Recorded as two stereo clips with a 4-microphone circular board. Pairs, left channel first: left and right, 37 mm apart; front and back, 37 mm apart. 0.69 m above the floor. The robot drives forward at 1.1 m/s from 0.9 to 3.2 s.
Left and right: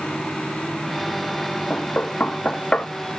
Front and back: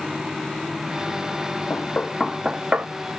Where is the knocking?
35° left, 0.9 m; by 2.9 s 145° left, 0.9 m.